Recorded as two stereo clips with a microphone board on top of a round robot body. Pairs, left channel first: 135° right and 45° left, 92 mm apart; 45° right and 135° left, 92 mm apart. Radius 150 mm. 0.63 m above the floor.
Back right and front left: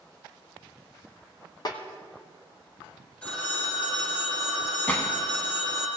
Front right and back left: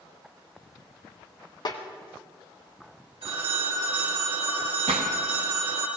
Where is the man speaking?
I don't hear a man speaking.